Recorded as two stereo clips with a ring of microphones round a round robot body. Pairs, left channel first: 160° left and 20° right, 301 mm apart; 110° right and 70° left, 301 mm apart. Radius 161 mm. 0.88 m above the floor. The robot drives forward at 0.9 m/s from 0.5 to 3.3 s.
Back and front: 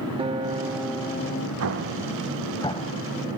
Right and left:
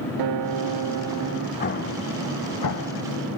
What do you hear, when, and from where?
0.2 s a guitar: 50° left, 1.0 m; by 1.5 s 110° left, 0.8 m
1.6 s an explosion: 55° right, 0.9 m; by 3.0 s 145° right, 1.2 m